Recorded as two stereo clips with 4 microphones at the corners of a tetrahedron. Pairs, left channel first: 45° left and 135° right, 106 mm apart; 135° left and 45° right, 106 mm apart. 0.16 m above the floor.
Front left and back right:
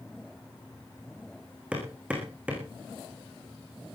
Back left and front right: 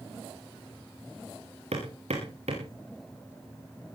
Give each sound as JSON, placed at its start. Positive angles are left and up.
{"t": 1.7, "sound": "hammering", "azimuth_deg": -55, "distance_m": 6.5}